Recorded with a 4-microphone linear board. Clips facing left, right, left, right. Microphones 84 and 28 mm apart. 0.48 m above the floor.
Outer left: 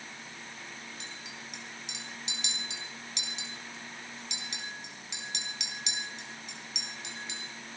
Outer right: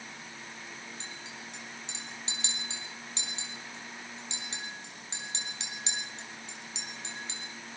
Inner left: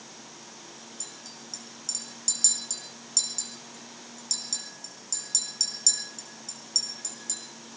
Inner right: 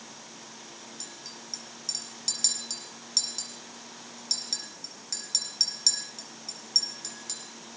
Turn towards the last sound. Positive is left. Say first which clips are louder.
# outer right 1 dB, inner right 1 dB
turn(degrees=-30)  # may be behind; listen again after turning